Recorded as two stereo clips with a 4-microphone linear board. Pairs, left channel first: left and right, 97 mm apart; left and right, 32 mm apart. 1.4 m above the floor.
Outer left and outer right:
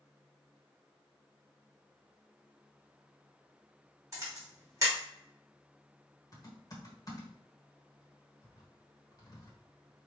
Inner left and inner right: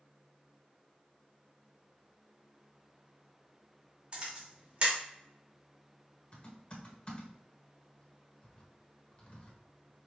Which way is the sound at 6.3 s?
40° left (ahead or behind).